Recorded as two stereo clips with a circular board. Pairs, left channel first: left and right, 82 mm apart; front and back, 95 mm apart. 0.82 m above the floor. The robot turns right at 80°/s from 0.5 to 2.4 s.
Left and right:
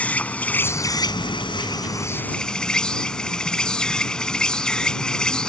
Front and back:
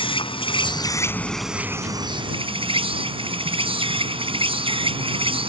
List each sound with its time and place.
0.0 s an insect: 15° left; by 5.5 s 170° left